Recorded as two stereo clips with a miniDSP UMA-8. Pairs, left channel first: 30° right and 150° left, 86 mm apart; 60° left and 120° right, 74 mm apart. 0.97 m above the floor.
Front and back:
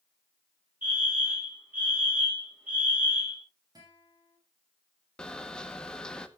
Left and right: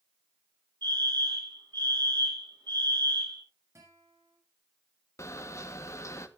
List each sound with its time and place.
0.8 s a fire alarm: 140° right, 7 m
3.8 s a guitar: 170° right, 6 m
5.2 s a camera shutter: 45° left, 1.1 m